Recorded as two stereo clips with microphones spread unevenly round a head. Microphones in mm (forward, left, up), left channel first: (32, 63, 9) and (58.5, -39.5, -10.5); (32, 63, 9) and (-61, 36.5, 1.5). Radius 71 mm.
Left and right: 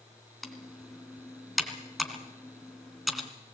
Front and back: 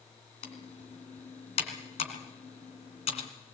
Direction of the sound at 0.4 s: 15° left.